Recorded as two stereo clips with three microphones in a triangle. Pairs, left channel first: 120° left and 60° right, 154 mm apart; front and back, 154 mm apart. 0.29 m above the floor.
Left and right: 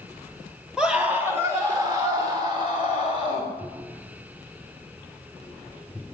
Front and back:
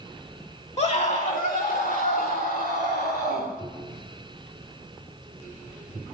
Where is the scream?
25° left, 2.0 m; by 3.5 s 5° right, 5 m.